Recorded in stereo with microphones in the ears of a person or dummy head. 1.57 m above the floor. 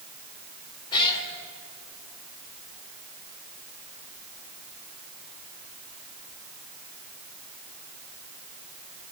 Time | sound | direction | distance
0.9 | a cat meowing | 25° left (ahead or behind) | 2.5 m